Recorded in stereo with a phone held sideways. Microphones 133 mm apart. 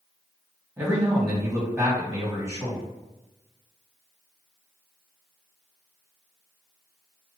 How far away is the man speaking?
About 1.6 m.